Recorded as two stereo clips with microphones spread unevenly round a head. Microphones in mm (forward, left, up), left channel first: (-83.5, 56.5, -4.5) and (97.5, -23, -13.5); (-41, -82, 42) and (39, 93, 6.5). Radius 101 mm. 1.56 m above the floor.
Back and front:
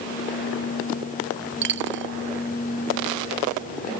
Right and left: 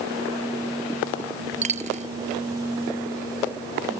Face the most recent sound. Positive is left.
turn(degrees=10)